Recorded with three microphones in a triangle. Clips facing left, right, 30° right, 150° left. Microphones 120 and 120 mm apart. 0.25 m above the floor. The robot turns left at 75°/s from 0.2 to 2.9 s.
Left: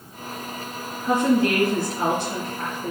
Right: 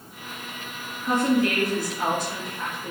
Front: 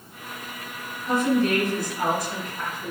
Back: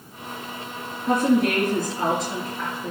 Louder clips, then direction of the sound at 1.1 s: Left 2 dB, back 2 dB; 175° left.